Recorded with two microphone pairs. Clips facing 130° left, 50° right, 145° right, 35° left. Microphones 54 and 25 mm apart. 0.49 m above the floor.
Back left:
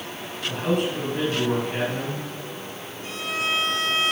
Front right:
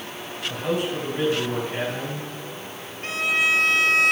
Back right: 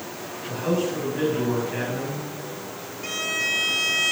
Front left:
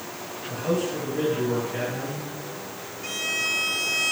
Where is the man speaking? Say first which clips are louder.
Back left 1 dB, back right 1 dB; 160° left, 5.5 m.